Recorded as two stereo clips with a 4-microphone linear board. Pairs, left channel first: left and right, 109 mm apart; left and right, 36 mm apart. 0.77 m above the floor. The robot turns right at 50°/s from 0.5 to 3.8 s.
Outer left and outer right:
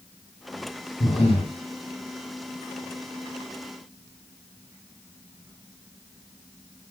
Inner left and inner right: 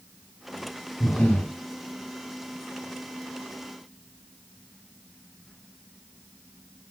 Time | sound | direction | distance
1.0 | breathing | 70° left (ahead or behind) | 2 m